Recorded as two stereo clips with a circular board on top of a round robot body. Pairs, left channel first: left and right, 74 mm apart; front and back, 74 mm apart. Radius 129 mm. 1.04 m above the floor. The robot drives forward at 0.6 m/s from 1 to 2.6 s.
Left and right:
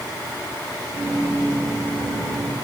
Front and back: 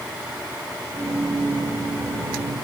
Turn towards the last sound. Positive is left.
No sound to turn to.